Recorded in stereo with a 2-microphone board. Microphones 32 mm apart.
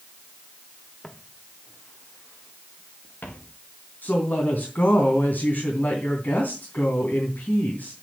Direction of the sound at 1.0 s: 20° left (ahead or behind).